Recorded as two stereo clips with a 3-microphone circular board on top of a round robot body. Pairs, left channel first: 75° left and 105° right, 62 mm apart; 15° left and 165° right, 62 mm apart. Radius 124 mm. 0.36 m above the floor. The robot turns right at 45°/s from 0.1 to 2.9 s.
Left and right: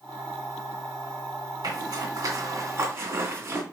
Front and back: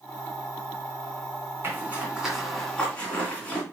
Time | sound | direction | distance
1.6 | a zipper | 110° right | 2.5 m